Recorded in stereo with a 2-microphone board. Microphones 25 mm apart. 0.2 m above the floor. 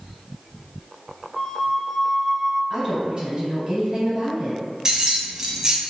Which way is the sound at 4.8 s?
25° right (ahead or behind).